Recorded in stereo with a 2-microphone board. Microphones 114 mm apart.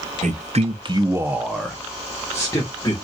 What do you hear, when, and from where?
0.2 s a man speaking: 75° right (ahead or behind), 1.1 m; by 3.0 s 30° left (ahead or behind), 2 m